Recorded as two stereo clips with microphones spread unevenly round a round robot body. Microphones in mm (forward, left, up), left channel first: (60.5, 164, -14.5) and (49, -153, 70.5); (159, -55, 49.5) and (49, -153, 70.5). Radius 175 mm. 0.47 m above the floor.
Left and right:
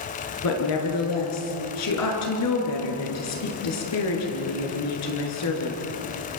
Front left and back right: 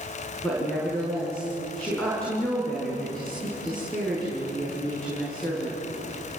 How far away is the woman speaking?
About 6.5 m.